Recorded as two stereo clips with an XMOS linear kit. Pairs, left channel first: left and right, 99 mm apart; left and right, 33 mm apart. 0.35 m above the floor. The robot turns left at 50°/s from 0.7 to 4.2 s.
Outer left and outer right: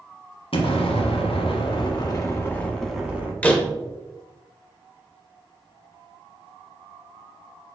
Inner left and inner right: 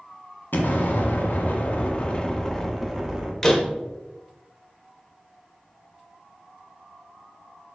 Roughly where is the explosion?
Left.